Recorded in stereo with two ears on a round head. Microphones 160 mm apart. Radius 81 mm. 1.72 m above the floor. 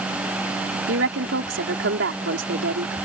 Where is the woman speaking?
70° right (ahead or behind).